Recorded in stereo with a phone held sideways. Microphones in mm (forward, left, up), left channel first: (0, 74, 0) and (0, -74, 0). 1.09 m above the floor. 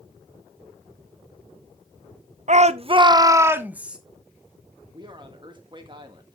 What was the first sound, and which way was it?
A shout, 55° right (ahead or behind).